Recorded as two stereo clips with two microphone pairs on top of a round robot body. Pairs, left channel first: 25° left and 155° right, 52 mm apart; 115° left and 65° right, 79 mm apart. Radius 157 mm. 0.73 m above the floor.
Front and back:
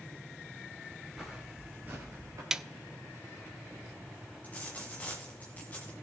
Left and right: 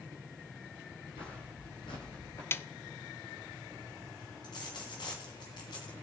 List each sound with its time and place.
1.2 s footsteps: 115° left, 1.2 m; by 2.4 s 170° left, 0.9 m
2.5 s a snare drum: 160° left, 0.6 m
4.4 s a dropped coin: 85° left, 1.6 m